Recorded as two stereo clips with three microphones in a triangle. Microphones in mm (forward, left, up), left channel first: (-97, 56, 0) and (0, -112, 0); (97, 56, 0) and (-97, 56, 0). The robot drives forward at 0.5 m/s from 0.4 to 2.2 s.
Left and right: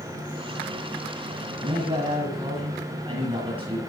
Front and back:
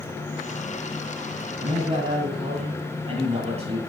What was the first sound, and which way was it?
A man speaking, 115° right.